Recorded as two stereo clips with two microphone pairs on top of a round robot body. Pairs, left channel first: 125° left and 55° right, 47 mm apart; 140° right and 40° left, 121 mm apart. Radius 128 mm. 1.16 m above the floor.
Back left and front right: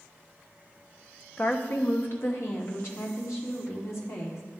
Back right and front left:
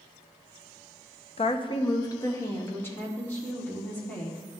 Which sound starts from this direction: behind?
A woman speaking, at 1.4 s.